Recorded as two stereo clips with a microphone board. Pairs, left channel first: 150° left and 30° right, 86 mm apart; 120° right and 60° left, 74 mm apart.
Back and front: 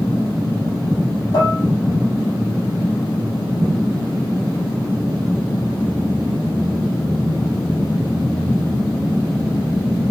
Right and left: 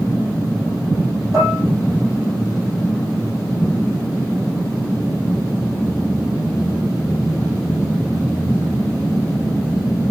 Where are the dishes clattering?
115° left, 5.5 m.